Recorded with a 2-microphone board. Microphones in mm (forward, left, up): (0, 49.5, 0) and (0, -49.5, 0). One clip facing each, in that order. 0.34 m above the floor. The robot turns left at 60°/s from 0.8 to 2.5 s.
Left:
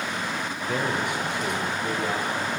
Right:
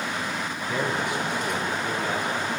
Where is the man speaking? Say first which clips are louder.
Even; 135° left, 8 m; by 2.5 s 35° left, 8 m.